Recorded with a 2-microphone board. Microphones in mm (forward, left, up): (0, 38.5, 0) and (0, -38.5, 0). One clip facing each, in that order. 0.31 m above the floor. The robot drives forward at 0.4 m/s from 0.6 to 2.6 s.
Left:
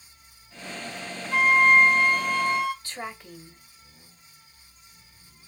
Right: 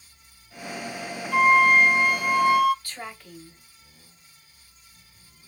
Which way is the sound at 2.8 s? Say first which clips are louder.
Left 2 dB; 20° left (ahead or behind).